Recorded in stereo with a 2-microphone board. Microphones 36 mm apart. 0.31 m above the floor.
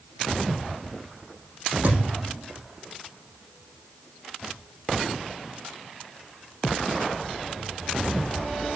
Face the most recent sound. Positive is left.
turn(degrees=-60)  # may be behind; listen again after turning